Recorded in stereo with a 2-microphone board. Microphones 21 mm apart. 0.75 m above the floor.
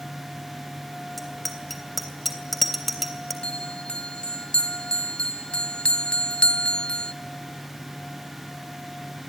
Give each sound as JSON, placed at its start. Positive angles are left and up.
{"t": 1.2, "sound": "a bicycle bell", "side_deg": 5, "distance_m": 3.0}
{"t": 3.4, "sound": "a bell", "side_deg": 50, "distance_m": 0.8}